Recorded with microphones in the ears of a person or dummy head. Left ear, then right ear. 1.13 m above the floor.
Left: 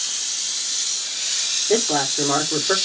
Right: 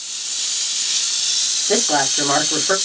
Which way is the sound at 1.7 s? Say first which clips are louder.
Right 3 dB; 30° right (ahead or behind).